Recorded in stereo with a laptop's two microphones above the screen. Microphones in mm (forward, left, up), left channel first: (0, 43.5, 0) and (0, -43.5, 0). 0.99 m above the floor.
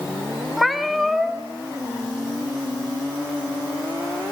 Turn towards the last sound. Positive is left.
turn(degrees=0)  # may be behind; listen again after turning